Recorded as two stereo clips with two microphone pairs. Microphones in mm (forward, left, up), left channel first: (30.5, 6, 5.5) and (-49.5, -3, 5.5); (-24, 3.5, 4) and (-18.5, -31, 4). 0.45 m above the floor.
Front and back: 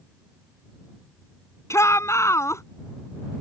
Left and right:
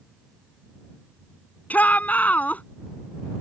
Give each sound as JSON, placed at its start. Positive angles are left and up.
{"t": 1.7, "sound": "a shout", "azimuth_deg": 60}